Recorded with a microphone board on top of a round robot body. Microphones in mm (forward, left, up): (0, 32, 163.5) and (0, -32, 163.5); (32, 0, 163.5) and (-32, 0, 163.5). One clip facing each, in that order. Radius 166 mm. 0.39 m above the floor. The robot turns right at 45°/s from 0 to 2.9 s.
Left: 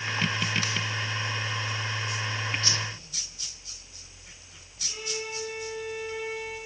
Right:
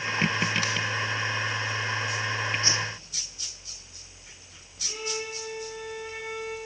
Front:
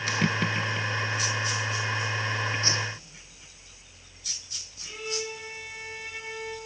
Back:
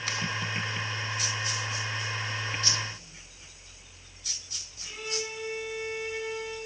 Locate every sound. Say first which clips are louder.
2.6 s a whoosh: right 3 dB, front 4 dB; 40° right, 1.6 m; by 2.9 s 30° right, 1.6 m
4.8 s a violin: right 2 dB, front 2 dB; 85° right, 9.5 m